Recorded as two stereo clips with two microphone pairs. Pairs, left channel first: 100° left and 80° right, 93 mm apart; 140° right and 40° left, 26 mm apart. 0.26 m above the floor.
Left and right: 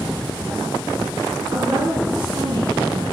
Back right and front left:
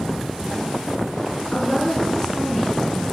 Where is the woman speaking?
70° right, 3 m.